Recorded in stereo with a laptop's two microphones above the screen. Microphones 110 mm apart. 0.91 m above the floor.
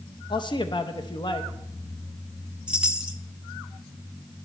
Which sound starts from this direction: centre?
A chime, at 2.7 s.